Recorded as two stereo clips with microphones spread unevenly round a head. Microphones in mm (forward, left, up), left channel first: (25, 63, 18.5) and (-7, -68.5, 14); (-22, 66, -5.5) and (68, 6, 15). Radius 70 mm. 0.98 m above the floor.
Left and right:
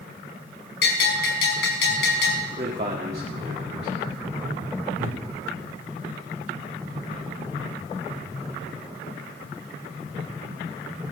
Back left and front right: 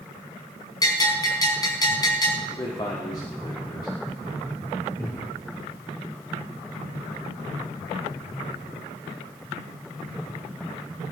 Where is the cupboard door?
140° right, 1.8 m.